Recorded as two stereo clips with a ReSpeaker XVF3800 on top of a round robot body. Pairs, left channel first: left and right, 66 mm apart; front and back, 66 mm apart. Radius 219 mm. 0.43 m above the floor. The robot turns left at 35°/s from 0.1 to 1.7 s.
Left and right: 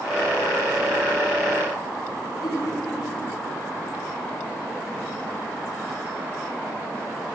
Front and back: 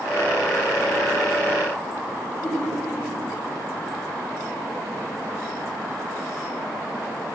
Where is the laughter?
75° left, 7 m.